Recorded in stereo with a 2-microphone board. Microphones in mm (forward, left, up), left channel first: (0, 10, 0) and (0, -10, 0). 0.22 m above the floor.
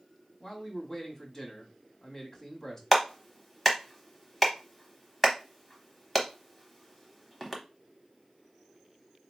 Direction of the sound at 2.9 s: 5° left (ahead or behind).